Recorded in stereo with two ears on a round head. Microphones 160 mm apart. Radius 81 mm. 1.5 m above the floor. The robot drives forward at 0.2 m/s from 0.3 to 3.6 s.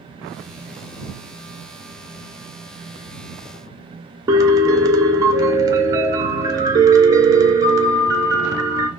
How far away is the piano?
About 0.5 m.